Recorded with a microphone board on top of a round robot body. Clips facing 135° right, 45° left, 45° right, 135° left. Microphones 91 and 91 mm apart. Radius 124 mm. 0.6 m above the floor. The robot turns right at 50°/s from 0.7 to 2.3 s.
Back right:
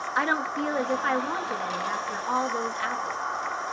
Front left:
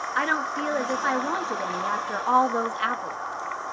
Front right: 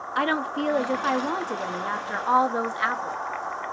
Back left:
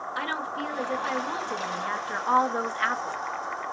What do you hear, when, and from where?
0.1 s a woman speaking: 50° right, 0.8 m; by 3.2 s 30° left, 0.8 m